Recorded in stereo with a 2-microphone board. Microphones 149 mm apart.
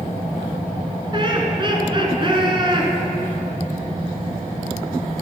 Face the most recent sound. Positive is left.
turn(degrees=-35)  # may be behind; listen again after turning